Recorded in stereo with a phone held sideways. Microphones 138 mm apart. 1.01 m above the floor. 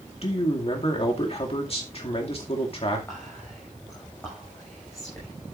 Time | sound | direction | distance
0.2 | a man speaking | 45° left (ahead or behind) | 2 m
3.1 | whispering | 20° left (ahead or behind) | 6 m